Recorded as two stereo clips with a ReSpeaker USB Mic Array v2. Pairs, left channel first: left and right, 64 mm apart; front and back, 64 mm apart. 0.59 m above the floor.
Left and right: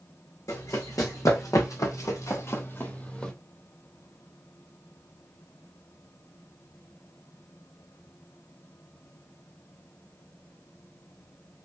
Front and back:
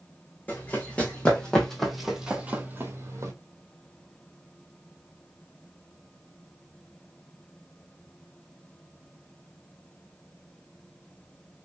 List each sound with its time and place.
0.5 s running footsteps: 65° left, 1.9 m; by 3.3 s 165° left, 1.1 m